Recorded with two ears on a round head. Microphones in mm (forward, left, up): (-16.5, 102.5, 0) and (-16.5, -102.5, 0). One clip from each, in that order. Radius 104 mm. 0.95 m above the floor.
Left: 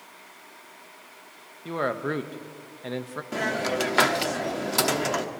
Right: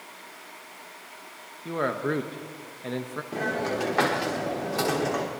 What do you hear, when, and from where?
1.6 s a man speaking: 15° left (ahead or behind), 0.7 m
3.3 s a hiss: 90° left, 1.3 m